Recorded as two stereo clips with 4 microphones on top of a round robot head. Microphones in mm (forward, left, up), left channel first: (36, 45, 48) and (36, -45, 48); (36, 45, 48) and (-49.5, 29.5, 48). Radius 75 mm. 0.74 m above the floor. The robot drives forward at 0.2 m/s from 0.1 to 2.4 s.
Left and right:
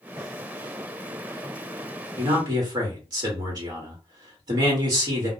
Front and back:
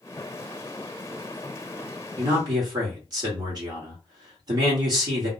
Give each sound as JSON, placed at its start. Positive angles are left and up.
{"t": 2.2, "sound": "a man speaking", "azimuth_deg": -130, "distance_m": 1.2}